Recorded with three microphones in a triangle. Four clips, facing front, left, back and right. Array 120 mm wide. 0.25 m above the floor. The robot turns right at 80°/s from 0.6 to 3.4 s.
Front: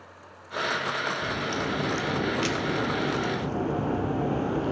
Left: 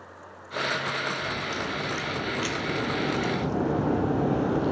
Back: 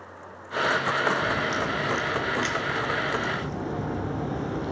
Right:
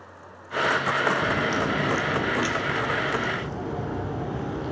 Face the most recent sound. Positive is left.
turn(degrees=75)